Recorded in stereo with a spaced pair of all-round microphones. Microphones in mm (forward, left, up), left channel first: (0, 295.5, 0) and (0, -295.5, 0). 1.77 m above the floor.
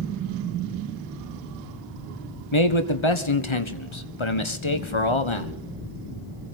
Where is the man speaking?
50° left (ahead or behind), 1.5 m.